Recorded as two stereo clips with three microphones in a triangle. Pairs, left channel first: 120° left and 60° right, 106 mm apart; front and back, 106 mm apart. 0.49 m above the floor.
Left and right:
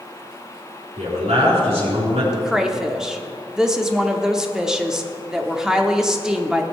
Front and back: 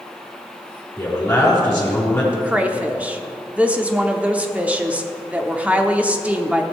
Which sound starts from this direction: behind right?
A woman speaking, at 2.3 s.